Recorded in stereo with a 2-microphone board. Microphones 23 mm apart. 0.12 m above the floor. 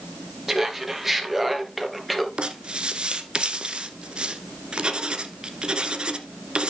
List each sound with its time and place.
0.5 s laughter: 10° right (ahead or behind), 3 m; by 2.3 s 5° left (ahead or behind), 1.9 m
2.4 s writing: 40° right (ahead or behind), 1.3 m